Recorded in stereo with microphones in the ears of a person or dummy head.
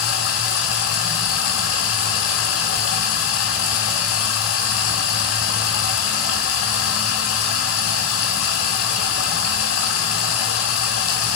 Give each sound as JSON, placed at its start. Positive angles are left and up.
{"t": 0.0, "sound": "running water", "side_deg": 70, "distance_m": 1.7}